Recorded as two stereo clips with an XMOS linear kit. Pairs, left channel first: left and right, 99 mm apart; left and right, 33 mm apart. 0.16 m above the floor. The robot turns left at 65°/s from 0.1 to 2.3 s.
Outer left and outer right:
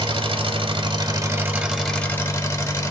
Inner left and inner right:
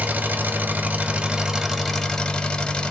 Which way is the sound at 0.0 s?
65° right.